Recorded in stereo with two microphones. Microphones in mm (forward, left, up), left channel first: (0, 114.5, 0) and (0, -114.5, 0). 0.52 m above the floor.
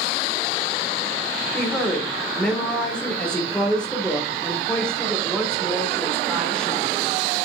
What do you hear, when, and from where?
1.5 s a woman speaking: 5° left (ahead or behind), 1.9 m